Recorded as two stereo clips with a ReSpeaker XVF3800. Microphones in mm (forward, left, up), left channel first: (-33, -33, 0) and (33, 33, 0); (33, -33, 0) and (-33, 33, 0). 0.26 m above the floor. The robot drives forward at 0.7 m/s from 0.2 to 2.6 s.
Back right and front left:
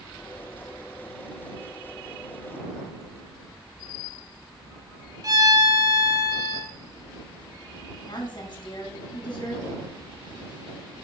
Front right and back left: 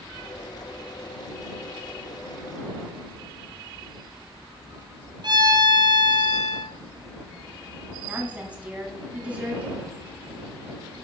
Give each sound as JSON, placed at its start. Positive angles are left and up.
{"t": 5.2, "sound": "a violin", "azimuth_deg": 95, "distance_m": 1.4}
{"t": 8.1, "sound": "a woman speaking", "azimuth_deg": -155, "distance_m": 2.0}